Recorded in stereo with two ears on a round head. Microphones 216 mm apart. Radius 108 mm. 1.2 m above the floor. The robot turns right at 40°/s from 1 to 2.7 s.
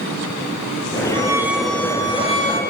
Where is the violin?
20° right, 4.5 m; by 2.6 s 40° left, 4.5 m.